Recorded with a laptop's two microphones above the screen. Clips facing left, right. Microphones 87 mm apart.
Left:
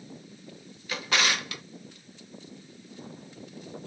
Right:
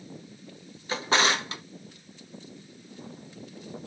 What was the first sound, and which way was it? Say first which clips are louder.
A drawer: right 4 dB; 30° right (ahead or behind).